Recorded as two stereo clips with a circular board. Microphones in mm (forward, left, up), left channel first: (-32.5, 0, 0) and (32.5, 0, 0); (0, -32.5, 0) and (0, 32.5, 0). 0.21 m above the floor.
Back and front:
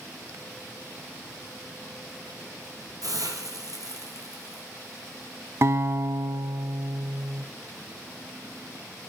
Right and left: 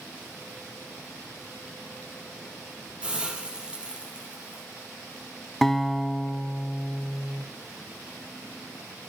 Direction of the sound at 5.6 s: 5° right.